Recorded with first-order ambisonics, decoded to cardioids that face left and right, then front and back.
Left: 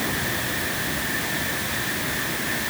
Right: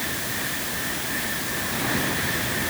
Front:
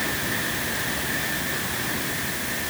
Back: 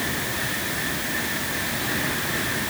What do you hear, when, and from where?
Only background noise.